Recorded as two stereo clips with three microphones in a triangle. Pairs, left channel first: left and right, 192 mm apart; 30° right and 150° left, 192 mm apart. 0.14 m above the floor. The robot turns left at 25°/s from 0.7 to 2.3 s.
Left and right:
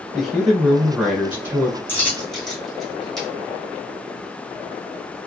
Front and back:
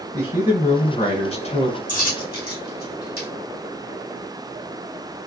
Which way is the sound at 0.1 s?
Straight ahead.